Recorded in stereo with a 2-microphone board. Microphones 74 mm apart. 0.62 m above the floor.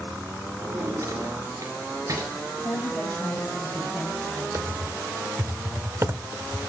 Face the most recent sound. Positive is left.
turn(degrees=-35)  # may be behind; listen again after turning